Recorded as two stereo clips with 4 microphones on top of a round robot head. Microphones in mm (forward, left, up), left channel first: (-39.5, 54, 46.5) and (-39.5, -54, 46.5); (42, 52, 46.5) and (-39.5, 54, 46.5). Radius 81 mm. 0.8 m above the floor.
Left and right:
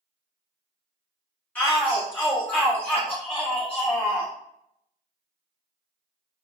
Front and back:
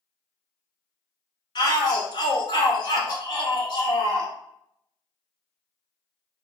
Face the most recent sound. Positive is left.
turn(degrees=15)